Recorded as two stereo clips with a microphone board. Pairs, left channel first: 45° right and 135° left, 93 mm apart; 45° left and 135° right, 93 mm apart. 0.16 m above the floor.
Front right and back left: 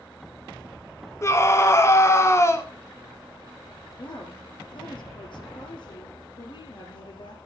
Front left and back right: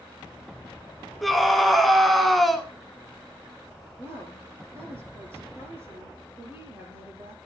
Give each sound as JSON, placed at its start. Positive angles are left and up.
{"t": 1.2, "sound": "a scream", "azimuth_deg": -45, "distance_m": 1.1}
{"t": 4.0, "sound": "a woman speaking", "azimuth_deg": -70, "distance_m": 4.5}